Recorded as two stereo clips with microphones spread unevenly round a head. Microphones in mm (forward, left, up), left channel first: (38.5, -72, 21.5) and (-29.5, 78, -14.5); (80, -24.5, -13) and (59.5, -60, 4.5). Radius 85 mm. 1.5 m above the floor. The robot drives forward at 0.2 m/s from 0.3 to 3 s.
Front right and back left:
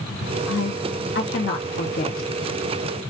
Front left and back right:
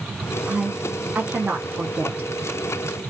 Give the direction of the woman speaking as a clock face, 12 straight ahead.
2 o'clock.